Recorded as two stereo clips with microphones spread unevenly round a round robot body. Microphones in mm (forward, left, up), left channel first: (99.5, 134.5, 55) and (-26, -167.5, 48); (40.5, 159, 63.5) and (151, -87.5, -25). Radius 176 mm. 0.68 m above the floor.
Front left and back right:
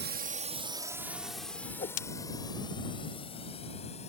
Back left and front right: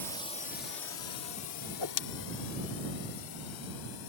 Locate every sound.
0.0 s a drone: 140° right; by 4.1 s 140° left
1.7 s a whoosh: 135° left